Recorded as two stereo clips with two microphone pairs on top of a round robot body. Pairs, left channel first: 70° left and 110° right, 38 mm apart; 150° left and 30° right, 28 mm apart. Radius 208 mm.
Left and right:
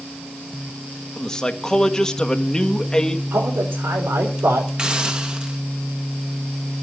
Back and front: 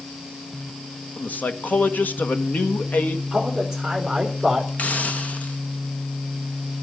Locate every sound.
1.2 s a man speaking: 140° left, 1.7 m
3.3 s a man speaking: 120° right, 3.5 m
4.8 s a hiss: straight behind, 1.9 m